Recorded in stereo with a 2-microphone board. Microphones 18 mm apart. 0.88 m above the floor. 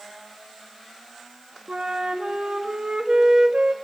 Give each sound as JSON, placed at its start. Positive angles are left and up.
{"t": 1.7, "sound": "a flute", "side_deg": -60, "distance_m": 1.6}